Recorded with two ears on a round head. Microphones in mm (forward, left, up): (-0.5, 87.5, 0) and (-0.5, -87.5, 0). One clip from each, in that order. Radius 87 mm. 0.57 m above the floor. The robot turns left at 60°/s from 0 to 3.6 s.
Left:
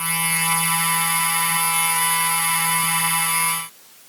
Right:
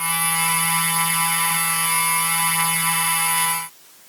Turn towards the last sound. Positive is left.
No sound to turn to.